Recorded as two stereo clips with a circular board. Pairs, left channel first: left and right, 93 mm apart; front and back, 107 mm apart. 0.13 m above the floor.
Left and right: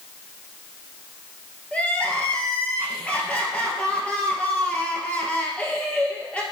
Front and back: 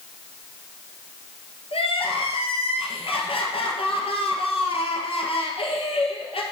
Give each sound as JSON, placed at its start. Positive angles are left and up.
{"t": 1.7, "sound": "crying", "azimuth_deg": 15, "distance_m": 1.4}